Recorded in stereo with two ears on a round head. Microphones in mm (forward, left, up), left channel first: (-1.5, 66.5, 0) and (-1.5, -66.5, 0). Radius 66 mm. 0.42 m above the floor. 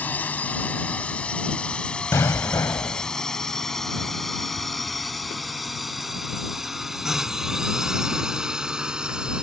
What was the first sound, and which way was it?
A drone, 10° left (ahead or behind).